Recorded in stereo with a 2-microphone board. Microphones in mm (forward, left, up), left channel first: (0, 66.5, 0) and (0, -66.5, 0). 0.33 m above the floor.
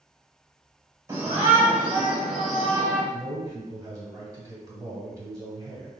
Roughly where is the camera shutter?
No camera shutter in this recording.